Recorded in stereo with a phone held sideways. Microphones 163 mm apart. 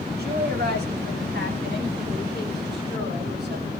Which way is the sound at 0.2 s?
70° right (ahead or behind).